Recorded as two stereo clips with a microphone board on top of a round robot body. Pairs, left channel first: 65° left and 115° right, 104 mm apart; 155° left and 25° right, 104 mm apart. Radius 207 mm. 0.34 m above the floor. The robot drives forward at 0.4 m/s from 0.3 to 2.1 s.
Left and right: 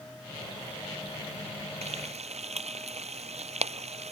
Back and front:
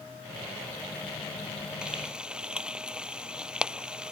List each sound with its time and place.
1.8 s frying: 105° right